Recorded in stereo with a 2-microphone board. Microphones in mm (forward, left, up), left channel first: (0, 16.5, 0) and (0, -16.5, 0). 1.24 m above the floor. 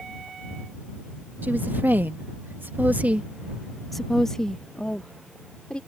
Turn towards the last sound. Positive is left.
turn(degrees=30)  # may be behind; listen again after turning